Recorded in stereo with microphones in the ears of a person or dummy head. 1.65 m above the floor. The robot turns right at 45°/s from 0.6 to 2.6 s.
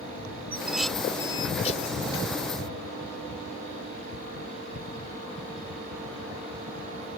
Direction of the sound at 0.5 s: 10° right (ahead or behind).